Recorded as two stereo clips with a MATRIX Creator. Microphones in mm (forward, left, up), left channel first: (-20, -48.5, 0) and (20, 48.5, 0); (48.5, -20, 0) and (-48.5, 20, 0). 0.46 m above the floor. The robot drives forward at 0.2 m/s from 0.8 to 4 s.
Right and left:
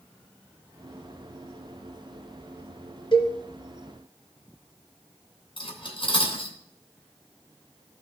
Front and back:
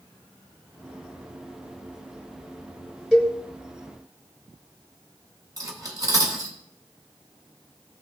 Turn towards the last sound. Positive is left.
turn(degrees=-150)